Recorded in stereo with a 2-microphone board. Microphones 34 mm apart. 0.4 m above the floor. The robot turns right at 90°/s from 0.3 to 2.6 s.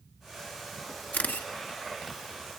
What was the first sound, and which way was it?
A camera shutter, 55° left.